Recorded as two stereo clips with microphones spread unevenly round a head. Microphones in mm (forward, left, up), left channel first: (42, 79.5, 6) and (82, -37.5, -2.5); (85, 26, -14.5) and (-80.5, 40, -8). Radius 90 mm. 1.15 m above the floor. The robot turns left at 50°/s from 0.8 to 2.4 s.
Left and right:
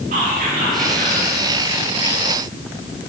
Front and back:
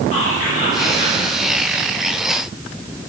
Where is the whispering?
60° right, 1.7 m; by 1.2 s 80° right, 1.7 m.